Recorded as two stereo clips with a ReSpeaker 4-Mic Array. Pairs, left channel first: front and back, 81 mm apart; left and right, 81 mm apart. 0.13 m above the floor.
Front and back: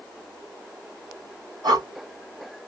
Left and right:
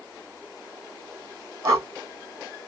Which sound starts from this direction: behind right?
Breathing, at 1.6 s.